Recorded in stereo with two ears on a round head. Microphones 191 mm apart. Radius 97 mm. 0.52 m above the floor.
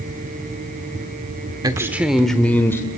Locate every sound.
1.6 s a man speaking: 20° right (ahead or behind), 1.0 m; by 2.9 s 15° left (ahead or behind), 1.6 m